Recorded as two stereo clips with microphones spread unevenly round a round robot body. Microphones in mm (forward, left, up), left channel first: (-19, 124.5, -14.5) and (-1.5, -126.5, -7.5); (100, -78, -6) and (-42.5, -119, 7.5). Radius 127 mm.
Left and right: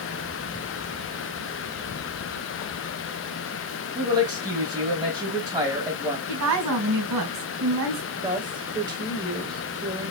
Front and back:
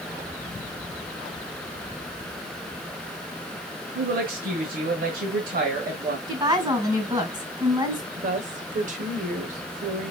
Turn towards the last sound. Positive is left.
turn(degrees=-155)